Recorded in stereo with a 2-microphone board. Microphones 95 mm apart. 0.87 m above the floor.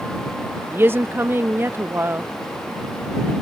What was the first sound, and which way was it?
A woman speaking, 25° right (ahead or behind).